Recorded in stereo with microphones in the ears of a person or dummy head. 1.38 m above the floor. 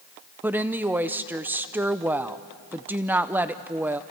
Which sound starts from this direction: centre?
A woman speaking, at 0.4 s.